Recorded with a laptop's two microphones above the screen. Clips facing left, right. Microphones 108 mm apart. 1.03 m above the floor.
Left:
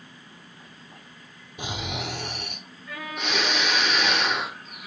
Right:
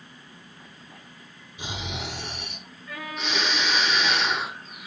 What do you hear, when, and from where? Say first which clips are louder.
1.6 s snoring: left 2 dB; 60° left (ahead or behind), 1.0 m